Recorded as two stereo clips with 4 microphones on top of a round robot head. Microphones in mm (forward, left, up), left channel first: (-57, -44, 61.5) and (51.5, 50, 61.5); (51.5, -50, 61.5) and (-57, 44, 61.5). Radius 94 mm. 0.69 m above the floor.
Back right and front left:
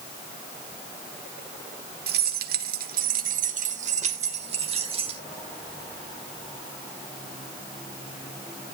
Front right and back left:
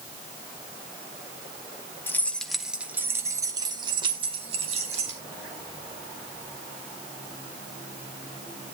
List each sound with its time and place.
2.1 s keys jangling: 35° left, 1.3 m; by 5.2 s 95° left, 2.5 m